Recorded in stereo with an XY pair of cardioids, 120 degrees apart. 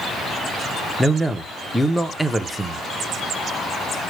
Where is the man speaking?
5° right, 0.6 m.